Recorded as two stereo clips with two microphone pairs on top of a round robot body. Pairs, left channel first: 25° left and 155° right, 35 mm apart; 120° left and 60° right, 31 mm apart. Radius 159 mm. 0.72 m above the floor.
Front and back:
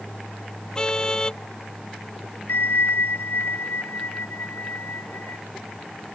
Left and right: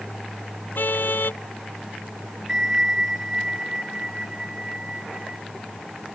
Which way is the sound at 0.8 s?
95° left.